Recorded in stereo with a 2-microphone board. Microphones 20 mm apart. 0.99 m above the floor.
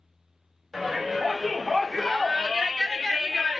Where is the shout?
20° left (ahead or behind), 2 m; by 3.6 s 5° right (ahead or behind), 0.8 m.